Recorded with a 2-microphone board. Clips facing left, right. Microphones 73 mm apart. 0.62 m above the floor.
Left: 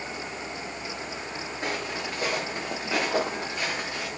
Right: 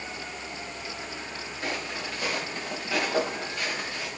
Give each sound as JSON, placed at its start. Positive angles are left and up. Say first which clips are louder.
{"t": 1.6, "sound": "footsteps", "louder": "left 1 dB", "side_deg": 30, "distance_m": 5.0}